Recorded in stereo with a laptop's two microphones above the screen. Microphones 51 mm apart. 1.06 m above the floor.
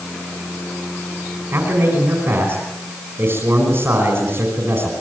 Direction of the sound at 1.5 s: 55° right (ahead or behind).